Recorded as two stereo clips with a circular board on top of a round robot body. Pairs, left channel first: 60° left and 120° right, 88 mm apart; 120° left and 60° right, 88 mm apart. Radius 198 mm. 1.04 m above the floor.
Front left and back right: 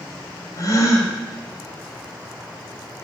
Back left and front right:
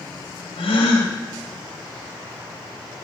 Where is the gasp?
110° left, 1.3 m.